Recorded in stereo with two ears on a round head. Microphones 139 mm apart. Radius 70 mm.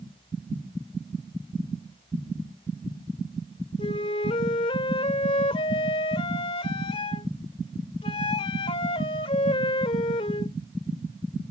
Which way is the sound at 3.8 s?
35° left (ahead or behind).